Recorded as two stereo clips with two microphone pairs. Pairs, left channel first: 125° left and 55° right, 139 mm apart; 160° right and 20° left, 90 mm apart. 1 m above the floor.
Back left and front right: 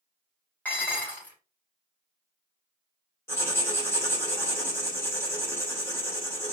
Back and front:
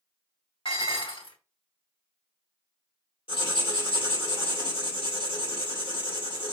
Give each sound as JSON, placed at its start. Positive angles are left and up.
{"t": 0.7, "sound": "dishes clattering", "azimuth_deg": -155, "distance_m": 3.0}
{"t": 3.3, "sound": "writing", "azimuth_deg": -165, "distance_m": 2.5}